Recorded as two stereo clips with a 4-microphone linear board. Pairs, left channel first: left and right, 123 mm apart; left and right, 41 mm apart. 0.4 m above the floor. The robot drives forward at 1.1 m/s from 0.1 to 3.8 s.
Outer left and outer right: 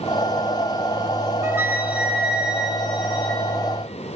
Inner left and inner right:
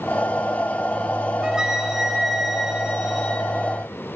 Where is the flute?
20° right (ahead or behind), 0.6 m; by 3.4 s 5° right (ahead or behind), 3 m.